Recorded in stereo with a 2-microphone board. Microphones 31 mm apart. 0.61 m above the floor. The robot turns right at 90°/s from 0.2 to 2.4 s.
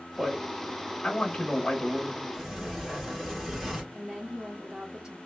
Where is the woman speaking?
10° right (ahead or behind), 0.8 m.